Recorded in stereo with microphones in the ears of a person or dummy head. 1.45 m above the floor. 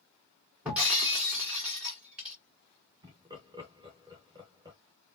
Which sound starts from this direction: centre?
Breaking glass, at 0.7 s.